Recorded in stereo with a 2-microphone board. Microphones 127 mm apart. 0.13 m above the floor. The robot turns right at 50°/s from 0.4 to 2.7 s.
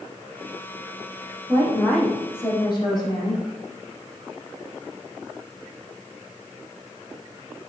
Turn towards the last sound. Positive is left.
turn(degrees=40)